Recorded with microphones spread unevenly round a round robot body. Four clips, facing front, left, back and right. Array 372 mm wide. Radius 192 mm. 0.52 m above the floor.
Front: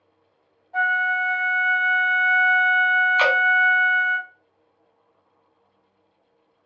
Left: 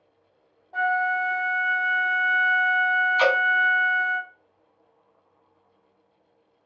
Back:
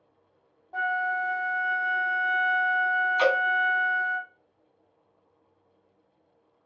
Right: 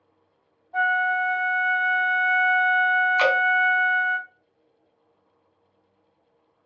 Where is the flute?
160° left, 1.0 m.